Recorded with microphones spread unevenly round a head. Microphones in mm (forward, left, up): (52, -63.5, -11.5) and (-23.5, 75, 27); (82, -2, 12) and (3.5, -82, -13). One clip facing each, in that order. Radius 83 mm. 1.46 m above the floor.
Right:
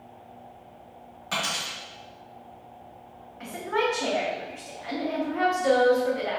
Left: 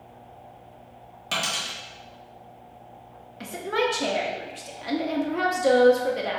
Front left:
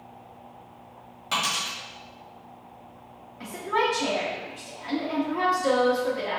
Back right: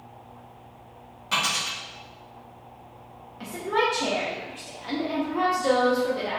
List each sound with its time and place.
1.3 s a dropped coin: 110° left, 1.3 m
3.4 s a woman speaking: 145° left, 0.6 m